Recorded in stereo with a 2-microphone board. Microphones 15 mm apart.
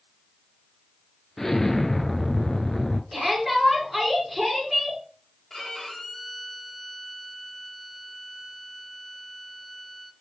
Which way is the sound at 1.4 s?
30° left (ahead or behind).